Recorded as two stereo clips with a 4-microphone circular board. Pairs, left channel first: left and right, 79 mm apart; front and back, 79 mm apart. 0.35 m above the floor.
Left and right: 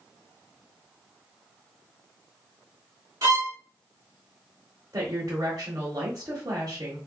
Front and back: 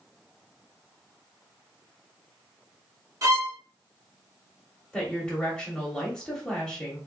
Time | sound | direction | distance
3.2 | a violin | 135° right | 1.0 m
4.9 | a woman speaking | 75° right | 1.2 m